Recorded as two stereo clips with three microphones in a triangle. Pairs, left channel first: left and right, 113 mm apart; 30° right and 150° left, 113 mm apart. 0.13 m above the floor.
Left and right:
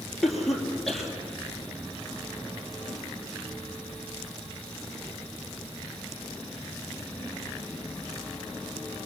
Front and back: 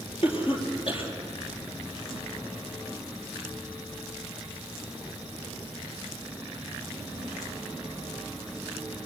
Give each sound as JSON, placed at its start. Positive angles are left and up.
{"t": 0.2, "sound": "a cough", "azimuth_deg": 0, "distance_m": 4.5}